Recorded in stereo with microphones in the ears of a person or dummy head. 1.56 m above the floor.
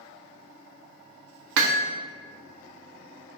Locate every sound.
1.6 s hammering: 65° right (ahead or behind), 0.7 m